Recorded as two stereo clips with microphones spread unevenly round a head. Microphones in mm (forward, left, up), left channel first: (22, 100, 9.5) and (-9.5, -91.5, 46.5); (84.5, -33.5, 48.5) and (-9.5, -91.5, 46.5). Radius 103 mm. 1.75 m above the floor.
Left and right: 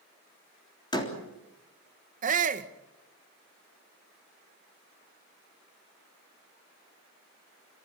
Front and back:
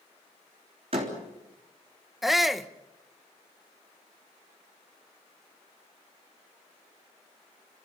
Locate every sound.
0.9 s a door slam: 155° left, 3.5 m
2.2 s a shout: 60° right, 1.3 m